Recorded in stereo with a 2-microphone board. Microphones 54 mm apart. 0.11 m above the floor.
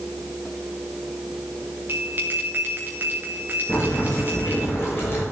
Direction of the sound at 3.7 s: 45° left (ahead or behind).